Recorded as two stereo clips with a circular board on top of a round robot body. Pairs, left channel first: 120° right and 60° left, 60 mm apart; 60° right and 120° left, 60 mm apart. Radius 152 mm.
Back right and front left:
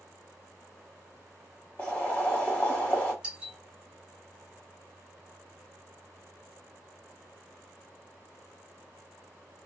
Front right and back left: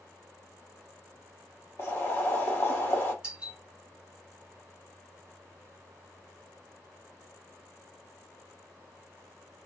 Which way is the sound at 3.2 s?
90° left.